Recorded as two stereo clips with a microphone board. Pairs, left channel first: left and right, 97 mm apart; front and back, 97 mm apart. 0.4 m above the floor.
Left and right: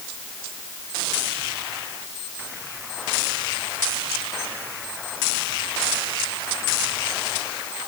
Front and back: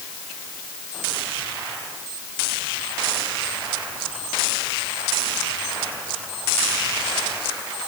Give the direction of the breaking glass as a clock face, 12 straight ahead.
I don't hear breaking glass.